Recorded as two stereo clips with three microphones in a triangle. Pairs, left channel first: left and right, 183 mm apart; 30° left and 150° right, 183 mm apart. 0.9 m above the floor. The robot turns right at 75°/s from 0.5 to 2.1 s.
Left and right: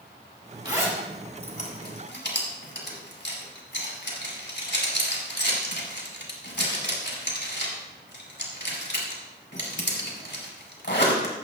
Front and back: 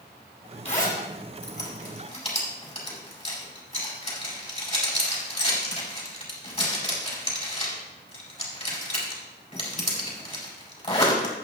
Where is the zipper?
25° right, 4.5 m; by 11.3 s 85° left, 4.5 m.